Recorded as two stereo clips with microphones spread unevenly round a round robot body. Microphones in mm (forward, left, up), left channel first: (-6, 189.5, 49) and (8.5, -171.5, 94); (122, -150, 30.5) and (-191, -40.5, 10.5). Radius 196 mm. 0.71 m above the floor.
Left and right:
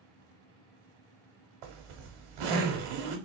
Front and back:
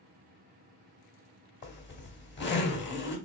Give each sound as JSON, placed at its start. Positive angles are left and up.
{"t": 1.6, "sound": "a zipper", "azimuth_deg": -80, "distance_m": 1.4}